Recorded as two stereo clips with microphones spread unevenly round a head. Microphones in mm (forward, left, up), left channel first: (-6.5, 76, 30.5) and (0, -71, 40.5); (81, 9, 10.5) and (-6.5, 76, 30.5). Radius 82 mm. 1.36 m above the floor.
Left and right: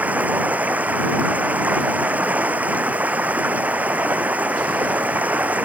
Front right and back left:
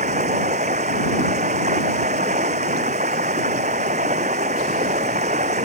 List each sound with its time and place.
0.0 s running water: 165° right